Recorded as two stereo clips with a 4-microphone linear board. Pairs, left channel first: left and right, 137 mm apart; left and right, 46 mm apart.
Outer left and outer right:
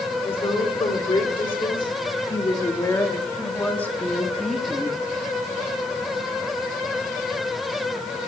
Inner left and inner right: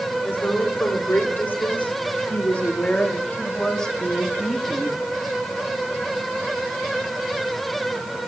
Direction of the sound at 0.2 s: 45° left (ahead or behind).